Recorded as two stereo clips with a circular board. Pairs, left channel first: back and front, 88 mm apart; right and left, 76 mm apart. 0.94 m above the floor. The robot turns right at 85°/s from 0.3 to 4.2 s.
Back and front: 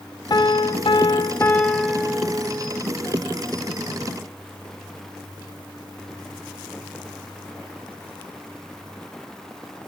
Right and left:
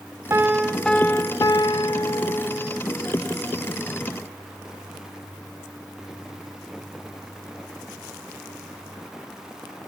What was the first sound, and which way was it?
A piano, 140° left.